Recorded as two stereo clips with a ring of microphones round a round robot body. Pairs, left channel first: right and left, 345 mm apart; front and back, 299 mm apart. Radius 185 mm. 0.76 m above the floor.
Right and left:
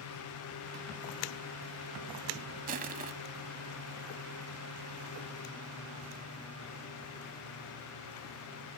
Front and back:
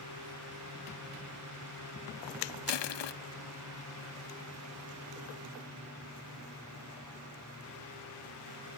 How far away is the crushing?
About 0.9 m.